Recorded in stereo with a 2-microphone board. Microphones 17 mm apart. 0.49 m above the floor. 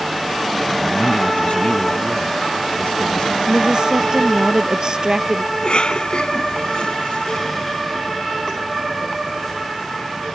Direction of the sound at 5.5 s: 60° left (ahead or behind).